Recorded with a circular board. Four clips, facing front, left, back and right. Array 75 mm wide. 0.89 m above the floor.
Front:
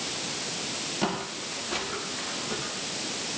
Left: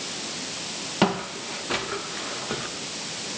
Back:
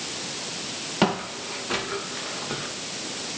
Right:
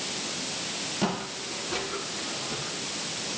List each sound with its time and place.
1.0 s footsteps: 130° left, 5 m; by 2.7 s 120° left, 5.5 m